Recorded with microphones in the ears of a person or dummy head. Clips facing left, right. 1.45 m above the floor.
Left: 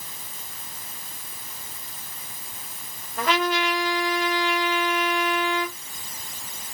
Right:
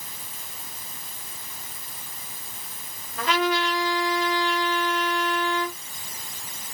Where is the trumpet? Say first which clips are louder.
Even; 55° left (ahead or behind), 2 m.